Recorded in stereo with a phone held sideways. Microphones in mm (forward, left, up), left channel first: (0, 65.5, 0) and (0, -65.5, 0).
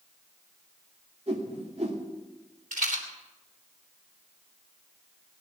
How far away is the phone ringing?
No phone ringing in this recording.